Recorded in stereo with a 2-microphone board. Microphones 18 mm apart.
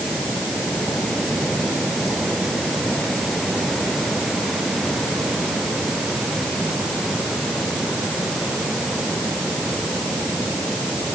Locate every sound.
Only background noise.